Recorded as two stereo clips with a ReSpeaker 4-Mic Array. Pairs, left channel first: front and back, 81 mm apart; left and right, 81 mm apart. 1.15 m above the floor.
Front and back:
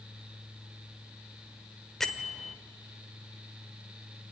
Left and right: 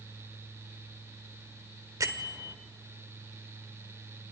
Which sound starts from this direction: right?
A bell, at 2.0 s.